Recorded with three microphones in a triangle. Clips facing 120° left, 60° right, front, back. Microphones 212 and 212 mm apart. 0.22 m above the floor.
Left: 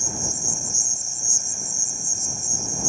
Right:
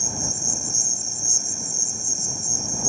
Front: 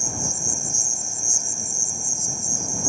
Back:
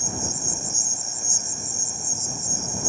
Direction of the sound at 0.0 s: 80° right.